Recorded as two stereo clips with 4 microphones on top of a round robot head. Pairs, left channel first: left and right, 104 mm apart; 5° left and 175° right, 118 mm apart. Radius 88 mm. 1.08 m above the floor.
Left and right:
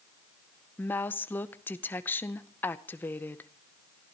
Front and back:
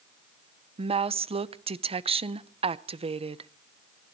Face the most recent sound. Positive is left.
turn(degrees=160)